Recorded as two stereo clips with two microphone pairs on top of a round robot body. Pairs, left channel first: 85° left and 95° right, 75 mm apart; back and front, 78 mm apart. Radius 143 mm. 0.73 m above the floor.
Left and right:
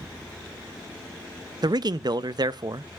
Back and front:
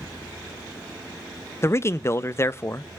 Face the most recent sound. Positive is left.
turn(degrees=-125)